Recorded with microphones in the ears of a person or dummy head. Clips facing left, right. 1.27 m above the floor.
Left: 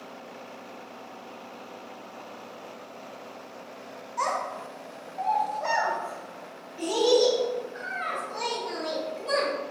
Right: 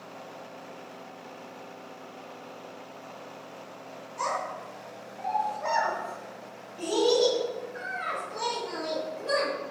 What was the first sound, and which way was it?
A child speaking, 45° left (ahead or behind).